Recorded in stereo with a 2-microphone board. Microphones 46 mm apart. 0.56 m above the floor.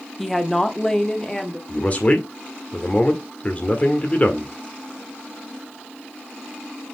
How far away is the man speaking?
About 1.5 m.